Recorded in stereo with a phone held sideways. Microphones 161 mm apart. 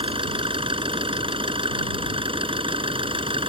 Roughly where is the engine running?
Right.